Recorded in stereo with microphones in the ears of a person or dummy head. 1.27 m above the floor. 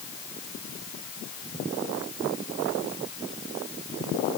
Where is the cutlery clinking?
I don't hear cutlery clinking.